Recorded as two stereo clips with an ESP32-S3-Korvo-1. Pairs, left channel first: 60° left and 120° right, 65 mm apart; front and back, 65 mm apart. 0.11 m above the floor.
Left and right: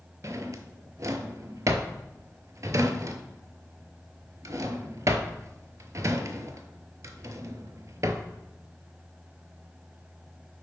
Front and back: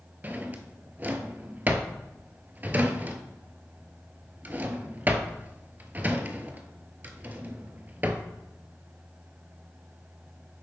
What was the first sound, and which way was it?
A drawer, 125° right.